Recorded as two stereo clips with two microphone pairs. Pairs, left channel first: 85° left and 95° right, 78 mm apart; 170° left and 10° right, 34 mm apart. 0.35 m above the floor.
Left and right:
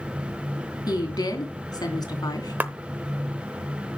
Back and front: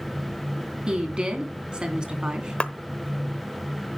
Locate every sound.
0.9 s a woman speaking: 55° left, 3 m
2.6 s a clap: 150° right, 0.8 m